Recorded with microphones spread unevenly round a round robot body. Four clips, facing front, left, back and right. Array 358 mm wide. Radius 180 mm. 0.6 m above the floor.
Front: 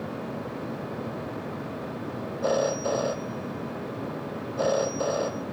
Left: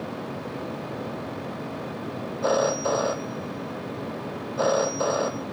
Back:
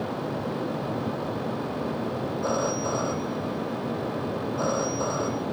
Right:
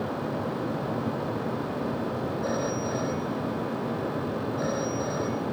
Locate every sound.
2.4 s a phone ringing: 85° left